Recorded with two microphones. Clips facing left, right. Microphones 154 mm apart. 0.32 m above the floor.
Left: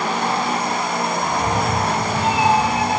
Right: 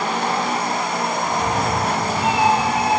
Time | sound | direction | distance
1.2 | a cat meowing | 25° left (ahead or behind) | 4.5 m